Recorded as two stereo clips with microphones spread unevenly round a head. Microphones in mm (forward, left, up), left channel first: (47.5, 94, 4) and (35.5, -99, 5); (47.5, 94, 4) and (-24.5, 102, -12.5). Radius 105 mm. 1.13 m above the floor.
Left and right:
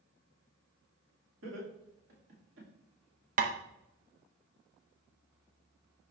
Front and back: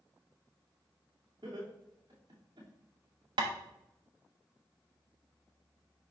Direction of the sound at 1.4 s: 130° right.